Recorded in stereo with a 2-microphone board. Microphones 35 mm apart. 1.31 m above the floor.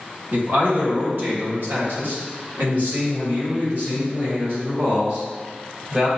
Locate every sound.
0.3 s a man speaking: 70° right (ahead or behind), 1.6 m; by 6.1 s 40° right (ahead or behind), 3.5 m